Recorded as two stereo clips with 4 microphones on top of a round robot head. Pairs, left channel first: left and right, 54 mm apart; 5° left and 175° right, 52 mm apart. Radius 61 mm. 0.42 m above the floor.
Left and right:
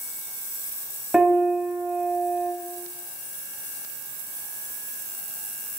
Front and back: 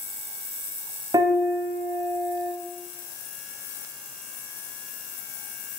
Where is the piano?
175° right, 1.2 m.